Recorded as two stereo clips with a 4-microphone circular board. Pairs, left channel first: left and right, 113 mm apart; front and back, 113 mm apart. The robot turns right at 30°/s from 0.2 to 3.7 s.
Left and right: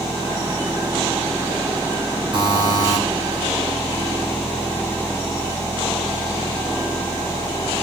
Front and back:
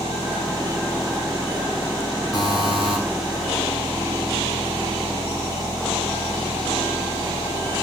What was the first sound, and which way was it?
A buzzer, 55° right.